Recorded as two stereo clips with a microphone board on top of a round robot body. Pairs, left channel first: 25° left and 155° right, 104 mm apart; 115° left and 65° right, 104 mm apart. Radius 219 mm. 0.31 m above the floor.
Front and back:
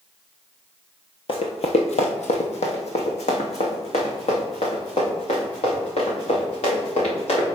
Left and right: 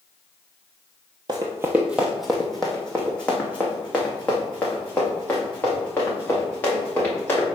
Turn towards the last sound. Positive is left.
turn(degrees=40)